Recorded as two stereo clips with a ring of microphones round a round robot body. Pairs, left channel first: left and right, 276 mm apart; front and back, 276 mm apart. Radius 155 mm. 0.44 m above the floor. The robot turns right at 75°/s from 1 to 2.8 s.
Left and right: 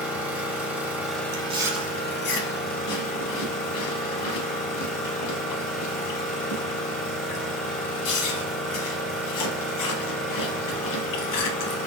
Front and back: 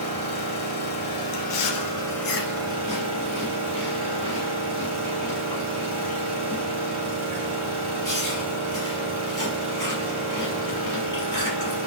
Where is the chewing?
35° right, 0.8 m; by 11.8 s 80° left, 0.8 m.